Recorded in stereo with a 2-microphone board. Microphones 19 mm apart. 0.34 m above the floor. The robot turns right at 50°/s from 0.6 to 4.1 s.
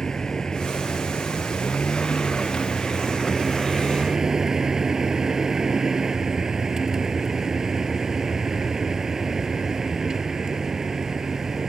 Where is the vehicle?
35° left; by 11.7 s 150° right.